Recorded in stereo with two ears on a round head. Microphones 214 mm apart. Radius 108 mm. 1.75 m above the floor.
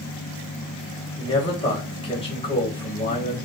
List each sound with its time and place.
1.2 s a man speaking: 25° left (ahead or behind), 1.9 m